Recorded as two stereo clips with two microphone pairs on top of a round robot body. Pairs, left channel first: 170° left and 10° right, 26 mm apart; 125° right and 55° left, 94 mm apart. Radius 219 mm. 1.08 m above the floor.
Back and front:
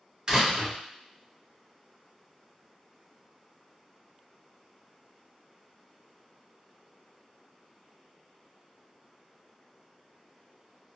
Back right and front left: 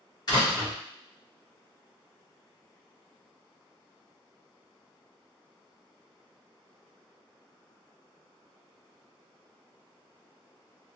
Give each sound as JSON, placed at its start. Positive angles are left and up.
{"t": 0.3, "sound": "a door slam", "azimuth_deg": -80, "distance_m": 1.5}